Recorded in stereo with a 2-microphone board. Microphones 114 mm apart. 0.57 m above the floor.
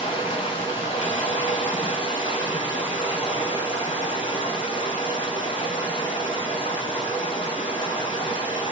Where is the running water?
45° left (ahead or behind), 3.5 m.